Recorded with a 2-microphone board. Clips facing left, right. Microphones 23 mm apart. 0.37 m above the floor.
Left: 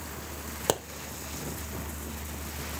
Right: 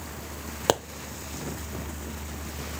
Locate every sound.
0.7 s a pop: 25° right (ahead or behind), 0.7 m